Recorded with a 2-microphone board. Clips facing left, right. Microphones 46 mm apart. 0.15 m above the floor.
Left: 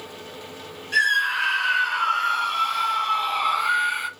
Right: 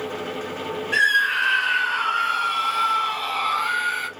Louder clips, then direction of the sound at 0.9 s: Right 2 dB; 20° right (ahead or behind).